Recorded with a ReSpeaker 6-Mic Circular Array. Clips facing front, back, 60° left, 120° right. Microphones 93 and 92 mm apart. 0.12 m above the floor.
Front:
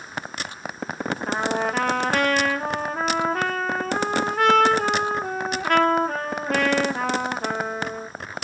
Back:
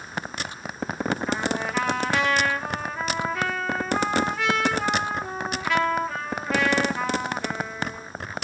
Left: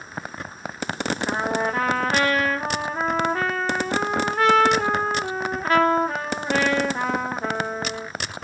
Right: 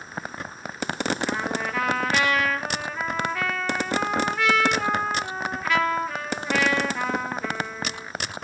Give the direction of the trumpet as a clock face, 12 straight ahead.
11 o'clock.